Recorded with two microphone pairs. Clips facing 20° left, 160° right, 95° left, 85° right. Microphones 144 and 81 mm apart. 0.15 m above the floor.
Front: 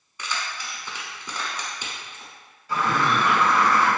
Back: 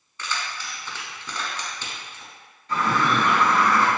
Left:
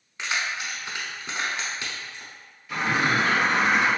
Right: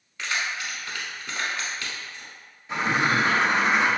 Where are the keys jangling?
65° left, 0.8 m.